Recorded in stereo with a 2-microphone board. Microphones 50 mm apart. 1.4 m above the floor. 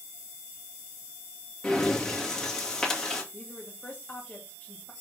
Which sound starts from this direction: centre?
Breathing, at 1.6 s.